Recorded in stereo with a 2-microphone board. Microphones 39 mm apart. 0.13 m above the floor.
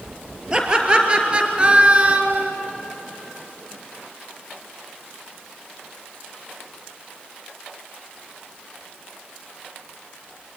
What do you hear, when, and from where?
0.5 s laughter: 20° right (ahead or behind), 3 m; by 2.5 s 35° right (ahead or behind), 2.0 m